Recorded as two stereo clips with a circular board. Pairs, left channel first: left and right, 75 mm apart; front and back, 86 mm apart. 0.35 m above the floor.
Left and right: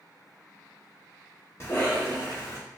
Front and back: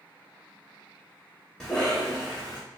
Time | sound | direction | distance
1.6 | a cough | 80° left | 1.0 m